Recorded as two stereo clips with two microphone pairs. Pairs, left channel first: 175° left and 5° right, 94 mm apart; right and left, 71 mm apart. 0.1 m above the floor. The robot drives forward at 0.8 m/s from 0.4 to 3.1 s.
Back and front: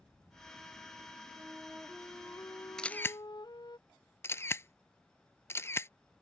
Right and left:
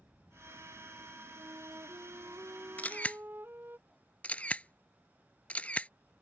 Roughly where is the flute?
Ahead left.